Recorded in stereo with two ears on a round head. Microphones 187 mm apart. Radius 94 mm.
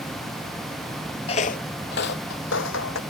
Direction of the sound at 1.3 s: 30° left (ahead or behind).